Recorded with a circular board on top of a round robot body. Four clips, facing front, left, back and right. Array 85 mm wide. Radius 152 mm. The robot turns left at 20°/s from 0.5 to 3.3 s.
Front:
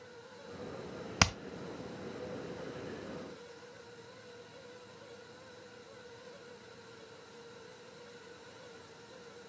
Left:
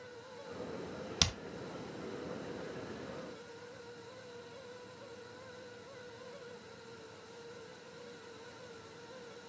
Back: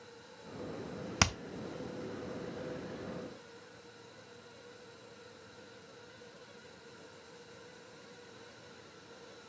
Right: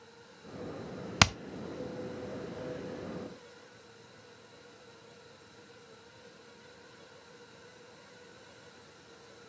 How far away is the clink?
I don't hear a clink.